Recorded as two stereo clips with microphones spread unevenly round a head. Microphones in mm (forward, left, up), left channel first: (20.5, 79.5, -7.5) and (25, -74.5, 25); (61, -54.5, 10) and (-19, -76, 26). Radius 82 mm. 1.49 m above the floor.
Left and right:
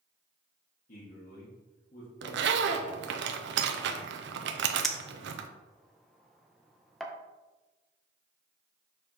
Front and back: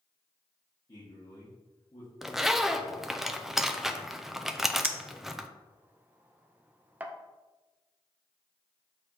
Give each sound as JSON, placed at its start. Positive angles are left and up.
{"t": 0.9, "sound": "a man speaking", "azimuth_deg": 60, "distance_m": 1.7}
{"t": 2.2, "sound": "a zipper", "azimuth_deg": -80, "distance_m": 0.6}
{"t": 4.8, "sound": "a clink", "azimuth_deg": -160, "distance_m": 0.5}